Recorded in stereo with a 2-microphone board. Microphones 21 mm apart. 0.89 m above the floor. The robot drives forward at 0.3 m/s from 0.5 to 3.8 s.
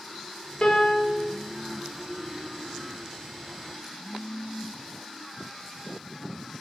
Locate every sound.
0.6 s a piano: 45° left (ahead or behind), 0.6 m; by 1.2 s 50° left (ahead or behind), 0.6 m